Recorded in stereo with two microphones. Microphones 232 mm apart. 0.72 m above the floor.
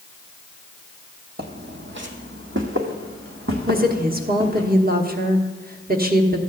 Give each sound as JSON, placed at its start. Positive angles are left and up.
{"t": 1.4, "sound": "footsteps", "side_deg": -45, "distance_m": 1.0}
{"t": 3.7, "sound": "a woman speaking", "side_deg": -40, "distance_m": 1.1}